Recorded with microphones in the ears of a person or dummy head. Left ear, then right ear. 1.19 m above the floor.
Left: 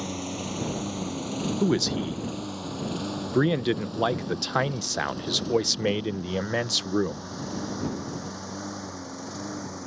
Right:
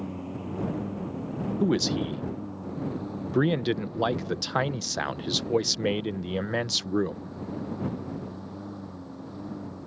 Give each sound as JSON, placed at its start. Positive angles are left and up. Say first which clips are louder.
{"t": 0.0, "sound": "a lawn mower", "louder": "left 4 dB", "side_deg": 80}
{"t": 1.6, "sound": "a man speaking", "louder": "even", "side_deg": 5}